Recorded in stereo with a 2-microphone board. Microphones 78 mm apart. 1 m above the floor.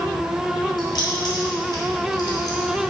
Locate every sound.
0.8 s keys jangling: 60° left (ahead or behind), 3 m